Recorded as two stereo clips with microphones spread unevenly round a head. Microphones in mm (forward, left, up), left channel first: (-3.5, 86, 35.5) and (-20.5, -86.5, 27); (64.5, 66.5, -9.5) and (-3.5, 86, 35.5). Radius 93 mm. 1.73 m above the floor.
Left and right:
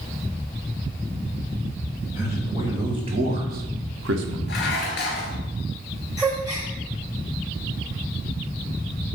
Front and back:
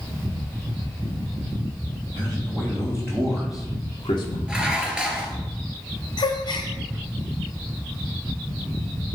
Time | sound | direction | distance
2.1 | a man speaking | 175° right | 2 m
4.5 | dishes clattering | 110° left | 2 m
6.2 | a gasp | 40° right | 1.4 m